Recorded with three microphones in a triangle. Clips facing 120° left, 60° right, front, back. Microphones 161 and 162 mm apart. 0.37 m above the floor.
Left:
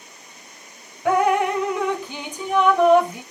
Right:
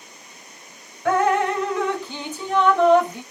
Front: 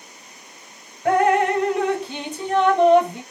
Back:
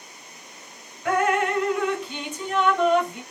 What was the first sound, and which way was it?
Dripping, 45° left.